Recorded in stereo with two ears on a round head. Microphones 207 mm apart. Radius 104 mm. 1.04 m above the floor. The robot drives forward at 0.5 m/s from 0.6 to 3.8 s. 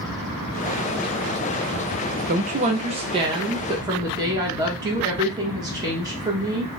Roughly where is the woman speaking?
Right.